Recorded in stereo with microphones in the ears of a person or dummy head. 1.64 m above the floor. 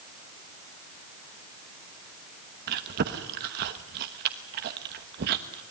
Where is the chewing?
40° right (ahead or behind), 1.1 m.